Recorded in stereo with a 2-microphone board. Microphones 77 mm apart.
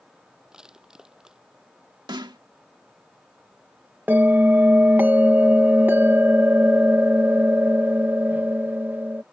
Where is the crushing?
10° right (ahead or behind).